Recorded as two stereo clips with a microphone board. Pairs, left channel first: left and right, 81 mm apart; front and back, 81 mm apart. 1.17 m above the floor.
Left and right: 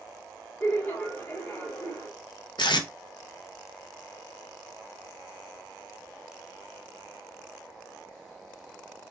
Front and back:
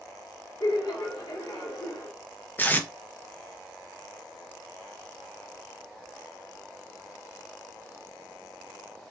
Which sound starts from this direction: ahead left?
Laughter, at 0.6 s.